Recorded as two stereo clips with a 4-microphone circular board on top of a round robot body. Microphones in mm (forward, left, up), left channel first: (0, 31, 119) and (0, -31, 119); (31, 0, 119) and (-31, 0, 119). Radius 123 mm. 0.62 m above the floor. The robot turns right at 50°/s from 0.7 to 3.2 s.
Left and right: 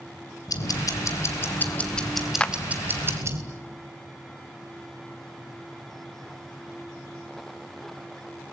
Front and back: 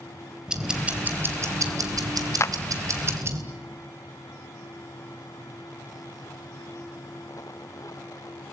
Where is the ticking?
100° left, 3 m; by 3.4 s 135° right, 3 m.